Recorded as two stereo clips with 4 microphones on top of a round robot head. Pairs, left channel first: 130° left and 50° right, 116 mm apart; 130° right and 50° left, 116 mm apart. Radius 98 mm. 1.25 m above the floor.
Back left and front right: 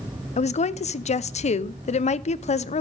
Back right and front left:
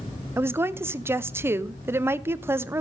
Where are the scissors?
I don't hear scissors.